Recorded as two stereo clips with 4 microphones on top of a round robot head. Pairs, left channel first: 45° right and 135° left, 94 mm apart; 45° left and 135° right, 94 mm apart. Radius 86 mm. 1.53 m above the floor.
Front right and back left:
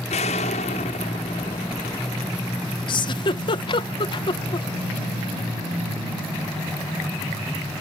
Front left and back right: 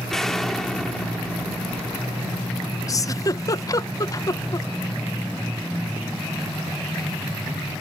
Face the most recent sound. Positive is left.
turn(degrees=-5)